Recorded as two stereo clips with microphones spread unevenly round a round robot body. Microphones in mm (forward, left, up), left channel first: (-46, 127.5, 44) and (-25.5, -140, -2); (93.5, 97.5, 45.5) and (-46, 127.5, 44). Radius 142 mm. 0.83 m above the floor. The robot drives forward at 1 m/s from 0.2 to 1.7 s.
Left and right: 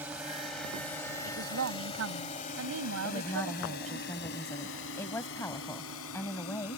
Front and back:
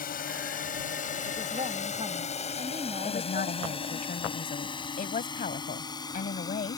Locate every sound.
0.0 s a drone: straight ahead; by 6.8 s 50° left
1.2 s a woman speaking: 120° right; by 4.0 s 125° right
3.0 s a woman speaking: 15° left